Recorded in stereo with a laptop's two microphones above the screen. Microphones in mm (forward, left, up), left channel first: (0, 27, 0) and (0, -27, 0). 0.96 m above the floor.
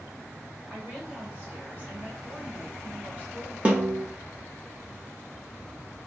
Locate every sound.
0.7 s a woman speaking: 35° right (ahead or behind), 1.5 m
3.6 s a snare drum: 30° right (ahead or behind), 0.8 m